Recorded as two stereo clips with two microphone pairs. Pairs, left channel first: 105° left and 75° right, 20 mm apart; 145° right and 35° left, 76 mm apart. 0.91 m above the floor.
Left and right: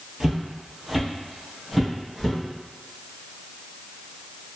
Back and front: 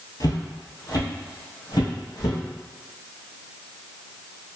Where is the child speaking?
I don't hear a child speaking.